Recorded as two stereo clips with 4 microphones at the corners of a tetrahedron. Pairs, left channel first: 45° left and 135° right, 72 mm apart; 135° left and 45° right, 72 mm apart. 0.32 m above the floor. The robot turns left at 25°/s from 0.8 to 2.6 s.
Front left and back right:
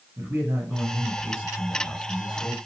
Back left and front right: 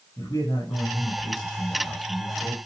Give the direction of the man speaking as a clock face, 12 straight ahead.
7 o'clock.